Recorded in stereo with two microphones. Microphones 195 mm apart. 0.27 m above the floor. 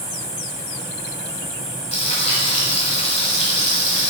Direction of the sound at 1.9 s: 35° left (ahead or behind).